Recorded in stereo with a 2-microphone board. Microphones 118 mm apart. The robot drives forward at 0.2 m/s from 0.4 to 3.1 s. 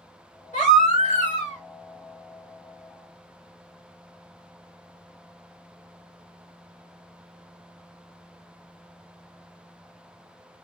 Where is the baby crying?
80° left, 1.7 m; by 1.6 s 75° left (ahead or behind), 1.7 m.